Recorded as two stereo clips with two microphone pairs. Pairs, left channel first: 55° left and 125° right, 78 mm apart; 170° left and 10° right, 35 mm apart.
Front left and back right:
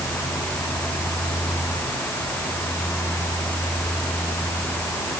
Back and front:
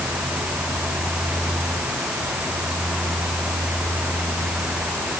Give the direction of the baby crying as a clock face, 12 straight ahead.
No baby crying in this recording.